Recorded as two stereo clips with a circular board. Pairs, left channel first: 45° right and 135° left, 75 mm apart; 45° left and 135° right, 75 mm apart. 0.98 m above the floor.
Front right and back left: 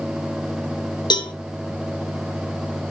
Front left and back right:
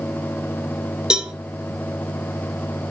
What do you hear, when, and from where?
1.1 s a cowbell: 55° right, 0.8 m